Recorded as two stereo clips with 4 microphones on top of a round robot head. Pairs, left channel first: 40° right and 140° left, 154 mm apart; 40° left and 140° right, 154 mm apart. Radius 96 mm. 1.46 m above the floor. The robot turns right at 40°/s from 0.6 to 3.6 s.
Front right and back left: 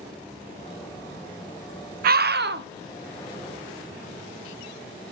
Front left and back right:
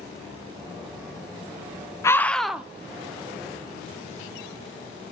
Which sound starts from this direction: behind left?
A scream, at 2.0 s.